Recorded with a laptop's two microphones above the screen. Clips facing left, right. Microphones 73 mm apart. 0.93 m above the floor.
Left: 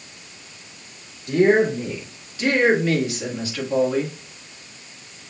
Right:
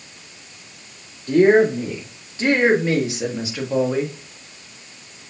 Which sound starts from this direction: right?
A woman speaking, at 1.3 s.